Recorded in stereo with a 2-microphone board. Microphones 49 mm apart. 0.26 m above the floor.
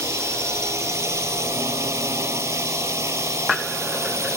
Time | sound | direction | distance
0.0 | a drone | 75° right (ahead or behind) | ?